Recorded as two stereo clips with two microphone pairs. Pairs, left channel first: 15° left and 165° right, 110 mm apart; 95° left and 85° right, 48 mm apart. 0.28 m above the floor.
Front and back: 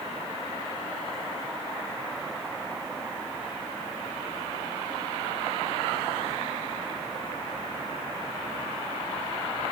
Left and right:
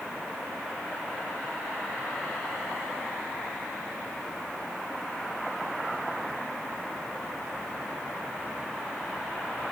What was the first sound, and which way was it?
Only background noise.